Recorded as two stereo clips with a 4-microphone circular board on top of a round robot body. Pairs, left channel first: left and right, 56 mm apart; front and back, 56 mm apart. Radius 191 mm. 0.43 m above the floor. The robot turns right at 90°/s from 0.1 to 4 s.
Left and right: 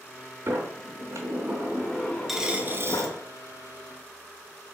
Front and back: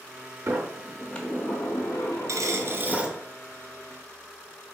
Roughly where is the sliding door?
Behind right.